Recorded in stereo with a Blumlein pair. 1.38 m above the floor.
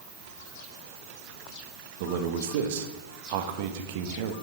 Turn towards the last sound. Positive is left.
turn(degrees=-50)